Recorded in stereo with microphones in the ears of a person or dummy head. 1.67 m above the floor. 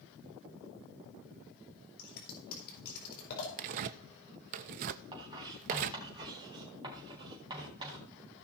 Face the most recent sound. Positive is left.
turn(degrees=-30)  # may be behind; listen again after turning